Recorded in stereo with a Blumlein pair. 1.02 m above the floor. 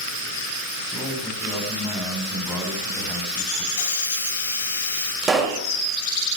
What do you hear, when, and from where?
0.9 s a man speaking: 5° right, 6.5 m
3.7 s a hiss: 65° left, 2.5 m
5.2 s a pop: 20° right, 2.5 m